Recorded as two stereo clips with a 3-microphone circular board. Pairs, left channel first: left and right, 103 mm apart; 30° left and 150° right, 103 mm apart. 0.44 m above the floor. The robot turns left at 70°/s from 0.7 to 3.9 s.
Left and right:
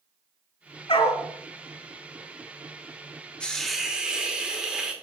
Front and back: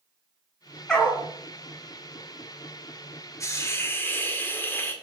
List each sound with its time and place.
0.9 s a dog barking: 115° left, 1.4 m; by 1.2 s 90° left, 1.4 m
3.4 s a hiss: 20° left, 1.0 m; by 4.9 s 15° right, 1.0 m